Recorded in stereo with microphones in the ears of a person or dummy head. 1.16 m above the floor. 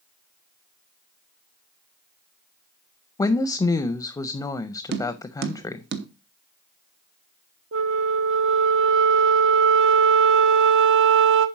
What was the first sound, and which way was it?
A woman speaking, 15° left (ahead or behind).